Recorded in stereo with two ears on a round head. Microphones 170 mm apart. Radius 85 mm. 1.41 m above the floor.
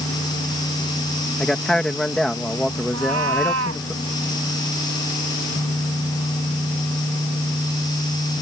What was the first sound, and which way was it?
A man speaking, 5° left (ahead or behind).